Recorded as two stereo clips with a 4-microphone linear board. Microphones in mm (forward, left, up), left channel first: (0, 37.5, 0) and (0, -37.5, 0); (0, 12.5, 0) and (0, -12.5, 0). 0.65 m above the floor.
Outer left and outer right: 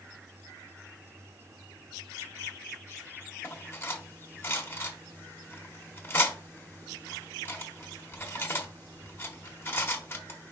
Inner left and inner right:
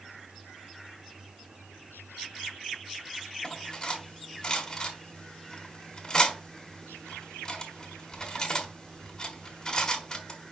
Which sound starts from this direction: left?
Cutlery clinking, at 3.4 s.